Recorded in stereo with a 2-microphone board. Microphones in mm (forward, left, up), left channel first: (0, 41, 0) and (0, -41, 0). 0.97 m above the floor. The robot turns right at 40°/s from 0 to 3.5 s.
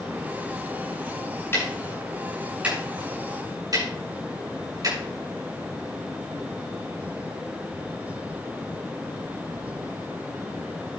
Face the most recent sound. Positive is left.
turn(degrees=-50)  # may be behind; listen again after turning